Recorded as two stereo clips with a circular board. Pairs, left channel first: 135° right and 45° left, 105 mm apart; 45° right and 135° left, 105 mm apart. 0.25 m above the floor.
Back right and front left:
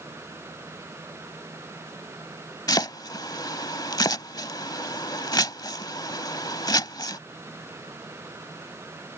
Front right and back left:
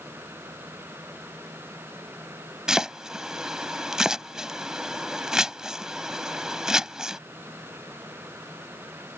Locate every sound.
2.7 s chopping: 145° right